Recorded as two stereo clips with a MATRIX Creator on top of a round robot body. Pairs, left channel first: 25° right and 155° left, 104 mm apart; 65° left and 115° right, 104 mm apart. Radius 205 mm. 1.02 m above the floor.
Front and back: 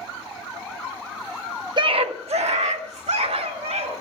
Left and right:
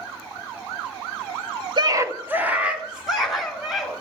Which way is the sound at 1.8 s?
155° right.